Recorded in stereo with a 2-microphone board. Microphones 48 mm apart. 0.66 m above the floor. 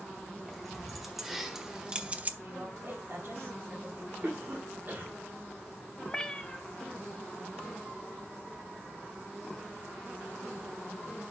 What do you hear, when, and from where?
0.5 s keys jangling: centre (ahead or behind), 2.5 m; by 2.3 s 35° right (ahead or behind), 0.6 m
2.4 s a woman speaking: 60° right (ahead or behind), 3.5 m
4.2 s a cough: 45° right (ahead or behind), 1.7 m
6.1 s a cat meowing: 15° left (ahead or behind), 0.8 m